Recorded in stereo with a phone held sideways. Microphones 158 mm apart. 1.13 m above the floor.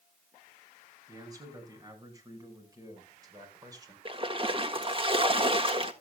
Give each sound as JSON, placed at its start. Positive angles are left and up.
{"t": 1.1, "sound": "a man speaking", "side_deg": -20, "distance_m": 6.5}
{"t": 4.0, "sound": "a splash", "side_deg": -35, "distance_m": 1.5}